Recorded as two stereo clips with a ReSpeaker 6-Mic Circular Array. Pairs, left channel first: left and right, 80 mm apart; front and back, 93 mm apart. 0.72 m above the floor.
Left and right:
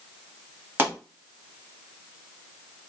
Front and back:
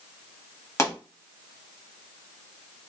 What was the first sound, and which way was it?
A pop, 40° right.